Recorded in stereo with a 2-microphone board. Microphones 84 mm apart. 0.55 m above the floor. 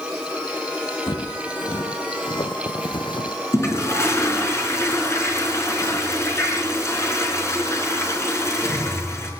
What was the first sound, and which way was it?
Footsteps, 70° left (ahead or behind).